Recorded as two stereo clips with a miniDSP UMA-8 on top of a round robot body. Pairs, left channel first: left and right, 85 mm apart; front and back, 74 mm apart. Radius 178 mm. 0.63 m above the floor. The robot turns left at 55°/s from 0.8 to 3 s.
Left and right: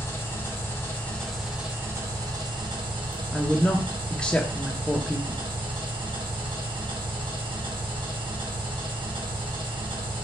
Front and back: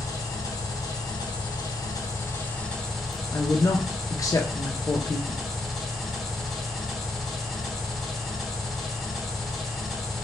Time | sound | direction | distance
0.0 | an engine running | 30° left | 2 m
3.3 | a woman speaking | 15° left | 0.8 m